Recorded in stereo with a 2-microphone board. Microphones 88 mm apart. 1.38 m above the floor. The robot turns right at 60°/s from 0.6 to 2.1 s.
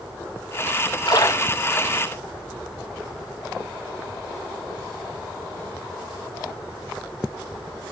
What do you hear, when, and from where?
1.1 s a splash: 50° left (ahead or behind), 0.9 m; by 2.1 s 5° left (ahead or behind), 0.9 m